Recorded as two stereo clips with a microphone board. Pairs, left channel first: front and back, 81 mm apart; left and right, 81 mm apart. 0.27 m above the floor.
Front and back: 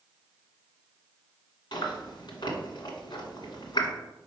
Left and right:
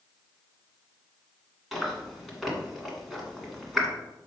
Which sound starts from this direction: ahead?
Chewing, at 1.7 s.